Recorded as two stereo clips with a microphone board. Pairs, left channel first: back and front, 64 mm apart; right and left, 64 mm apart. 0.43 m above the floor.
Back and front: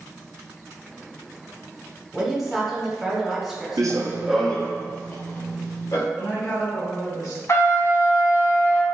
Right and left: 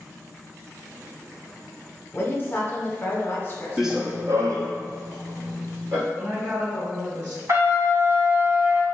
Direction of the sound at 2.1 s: 85° right.